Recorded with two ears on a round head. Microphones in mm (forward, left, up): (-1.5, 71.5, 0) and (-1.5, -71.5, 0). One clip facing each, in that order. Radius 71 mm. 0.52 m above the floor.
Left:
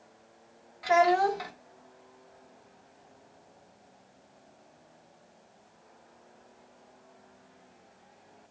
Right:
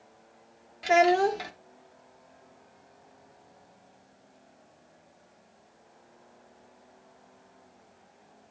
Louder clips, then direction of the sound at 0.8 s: Right 1 dB; 30° right (ahead or behind).